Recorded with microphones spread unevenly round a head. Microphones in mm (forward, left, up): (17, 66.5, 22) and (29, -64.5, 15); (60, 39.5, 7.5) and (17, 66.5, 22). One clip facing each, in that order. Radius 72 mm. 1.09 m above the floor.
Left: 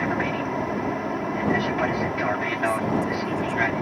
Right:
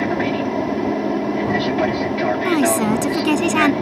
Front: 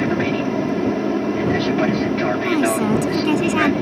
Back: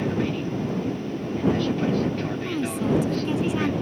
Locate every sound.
0.0 s an aircraft: 35° right
2.5 s a woman speaking: 85° right